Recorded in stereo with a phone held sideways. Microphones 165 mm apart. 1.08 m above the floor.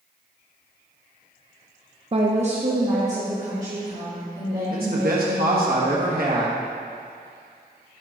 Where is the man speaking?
65° right (ahead or behind), 1.4 m.